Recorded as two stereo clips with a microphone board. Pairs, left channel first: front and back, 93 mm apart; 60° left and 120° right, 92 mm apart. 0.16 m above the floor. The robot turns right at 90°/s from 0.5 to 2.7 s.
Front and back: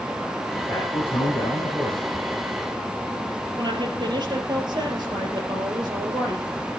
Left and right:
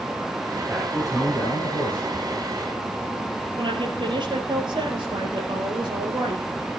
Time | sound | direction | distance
0.7 | a man speaking | 30° right | 5.5 m
3.6 | a woman speaking | 145° right | 3 m